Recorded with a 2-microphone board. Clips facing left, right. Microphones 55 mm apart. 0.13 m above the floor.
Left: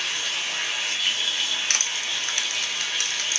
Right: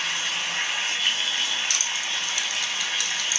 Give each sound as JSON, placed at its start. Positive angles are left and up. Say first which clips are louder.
{"t": 0.0, "sound": "running water", "louder": "right 1 dB", "side_deg": -30, "distance_m": 1.9}
{"t": 1.7, "sound": "crushing", "louder": "even", "side_deg": 60, "distance_m": 0.5}